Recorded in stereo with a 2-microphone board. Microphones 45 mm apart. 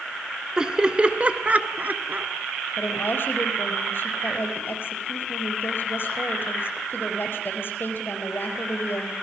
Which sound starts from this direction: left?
A woman speaking, at 2.8 s.